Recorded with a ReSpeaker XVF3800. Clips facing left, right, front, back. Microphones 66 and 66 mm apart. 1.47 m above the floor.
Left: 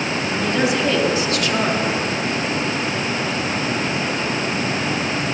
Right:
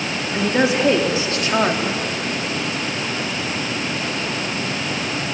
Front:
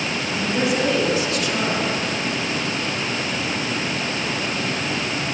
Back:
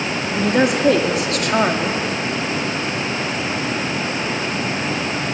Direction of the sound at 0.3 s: 150° right.